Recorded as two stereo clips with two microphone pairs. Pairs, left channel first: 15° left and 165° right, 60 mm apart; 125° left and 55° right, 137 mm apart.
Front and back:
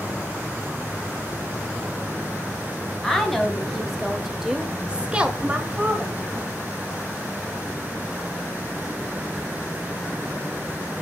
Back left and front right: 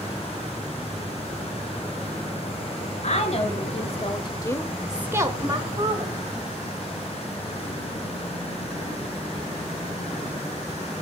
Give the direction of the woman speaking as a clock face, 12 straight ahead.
9 o'clock.